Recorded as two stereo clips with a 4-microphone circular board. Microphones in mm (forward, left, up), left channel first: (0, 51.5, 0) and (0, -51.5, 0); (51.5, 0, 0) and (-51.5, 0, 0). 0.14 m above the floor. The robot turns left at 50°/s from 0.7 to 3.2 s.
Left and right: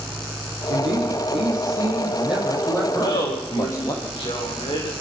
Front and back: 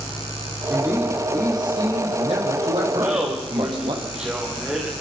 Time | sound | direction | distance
0.7 | a man speaking | 90° right | 6.5 m
2.9 | laughter | 115° left | 9.5 m